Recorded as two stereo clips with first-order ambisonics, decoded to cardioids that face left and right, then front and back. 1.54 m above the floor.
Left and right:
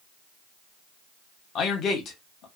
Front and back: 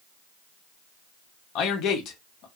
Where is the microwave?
No microwave in this recording.